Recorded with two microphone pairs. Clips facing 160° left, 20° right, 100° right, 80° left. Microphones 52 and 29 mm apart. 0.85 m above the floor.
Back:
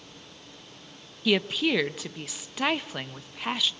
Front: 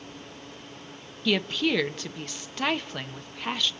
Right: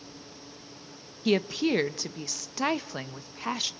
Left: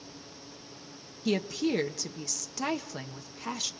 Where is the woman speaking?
120° right, 0.7 m.